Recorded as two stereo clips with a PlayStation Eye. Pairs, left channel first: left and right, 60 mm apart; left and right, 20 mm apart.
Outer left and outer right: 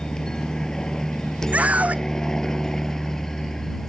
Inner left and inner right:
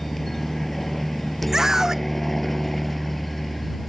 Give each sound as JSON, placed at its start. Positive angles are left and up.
{"t": 0.0, "sound": "a helicopter", "side_deg": 10}
{"t": 1.5, "sound": "a scream", "side_deg": -25}